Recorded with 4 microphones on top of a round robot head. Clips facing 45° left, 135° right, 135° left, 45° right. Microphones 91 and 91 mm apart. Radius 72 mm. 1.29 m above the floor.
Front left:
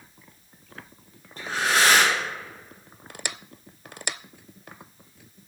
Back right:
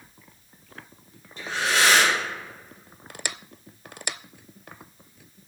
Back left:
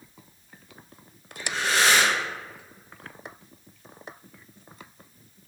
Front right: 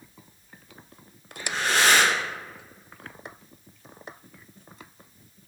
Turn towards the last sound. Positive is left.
turn(degrees=-5)